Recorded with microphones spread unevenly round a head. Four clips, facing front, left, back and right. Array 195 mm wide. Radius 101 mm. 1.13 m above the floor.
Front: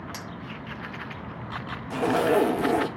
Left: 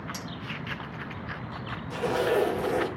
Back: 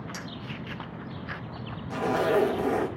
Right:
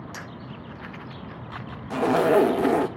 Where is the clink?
35° right, 1.1 m.